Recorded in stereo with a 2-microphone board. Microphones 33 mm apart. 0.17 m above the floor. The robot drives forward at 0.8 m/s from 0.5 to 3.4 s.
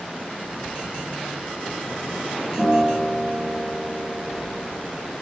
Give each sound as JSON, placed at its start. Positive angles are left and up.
{"t": 2.6, "sound": "a guitar", "side_deg": -25, "distance_m": 4.5}